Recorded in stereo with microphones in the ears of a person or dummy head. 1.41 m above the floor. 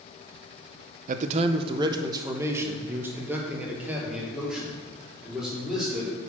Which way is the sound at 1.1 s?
45° right (ahead or behind).